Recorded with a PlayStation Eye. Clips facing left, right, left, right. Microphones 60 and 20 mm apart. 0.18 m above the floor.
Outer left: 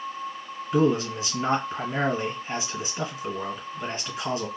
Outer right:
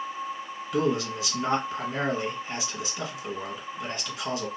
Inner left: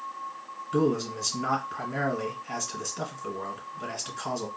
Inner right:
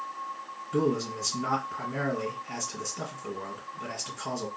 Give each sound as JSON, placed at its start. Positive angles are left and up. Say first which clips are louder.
{"t": 0.7, "sound": "a man speaking", "louder": "outer left 4 dB, inner left 2 dB", "side_deg": 30, "distance_m": 1.5}